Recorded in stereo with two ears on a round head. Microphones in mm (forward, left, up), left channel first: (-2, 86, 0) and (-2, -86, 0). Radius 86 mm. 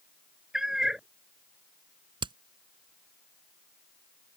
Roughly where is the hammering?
Right.